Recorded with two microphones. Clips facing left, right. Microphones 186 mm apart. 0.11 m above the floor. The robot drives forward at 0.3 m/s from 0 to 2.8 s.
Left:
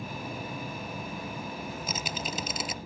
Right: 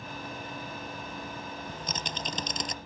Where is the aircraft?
35° left (ahead or behind).